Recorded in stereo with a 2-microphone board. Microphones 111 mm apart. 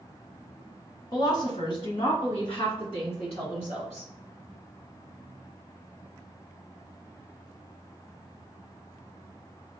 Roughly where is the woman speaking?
Left.